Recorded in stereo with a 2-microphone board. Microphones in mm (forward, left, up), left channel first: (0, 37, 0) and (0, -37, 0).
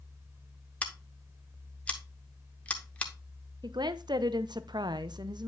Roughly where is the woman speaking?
Right.